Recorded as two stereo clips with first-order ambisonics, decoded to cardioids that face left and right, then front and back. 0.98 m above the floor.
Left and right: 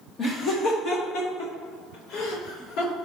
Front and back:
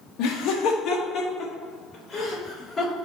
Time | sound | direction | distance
0.2 | laughter | 25° left | 0.9 m